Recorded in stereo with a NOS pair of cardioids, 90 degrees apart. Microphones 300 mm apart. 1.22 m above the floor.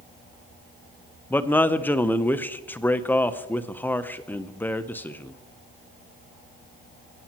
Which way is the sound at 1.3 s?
5° left.